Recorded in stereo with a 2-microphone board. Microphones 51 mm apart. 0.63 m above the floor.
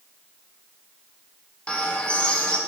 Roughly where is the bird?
Left.